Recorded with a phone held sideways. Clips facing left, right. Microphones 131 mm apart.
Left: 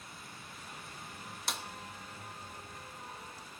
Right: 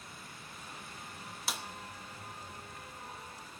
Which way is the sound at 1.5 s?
5° right (ahead or behind).